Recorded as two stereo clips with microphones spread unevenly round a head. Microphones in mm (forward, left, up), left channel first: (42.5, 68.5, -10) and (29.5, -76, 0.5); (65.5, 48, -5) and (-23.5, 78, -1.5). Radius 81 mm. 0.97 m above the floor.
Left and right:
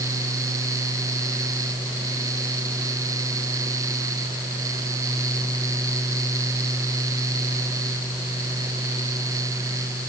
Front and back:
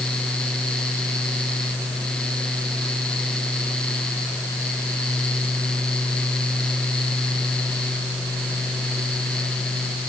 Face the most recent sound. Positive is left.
No sound to turn to.